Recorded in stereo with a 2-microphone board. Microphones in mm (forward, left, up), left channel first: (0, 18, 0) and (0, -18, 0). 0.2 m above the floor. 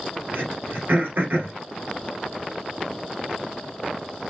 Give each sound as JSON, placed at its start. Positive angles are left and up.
{"t": 0.3, "sound": "throat clearing", "side_deg": -65, "distance_m": 2.0}